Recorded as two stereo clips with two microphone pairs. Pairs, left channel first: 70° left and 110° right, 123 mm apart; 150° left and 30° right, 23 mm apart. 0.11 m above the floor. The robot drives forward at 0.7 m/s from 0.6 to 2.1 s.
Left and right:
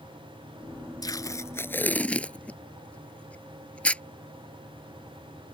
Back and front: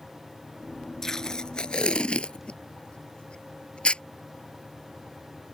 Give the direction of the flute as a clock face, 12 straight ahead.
I don't hear a flute.